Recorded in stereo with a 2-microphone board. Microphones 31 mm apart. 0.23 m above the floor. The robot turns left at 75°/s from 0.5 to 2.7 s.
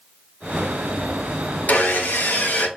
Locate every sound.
1.7 s sawing: 125° left, 0.7 m; by 2.7 s 50° left, 0.7 m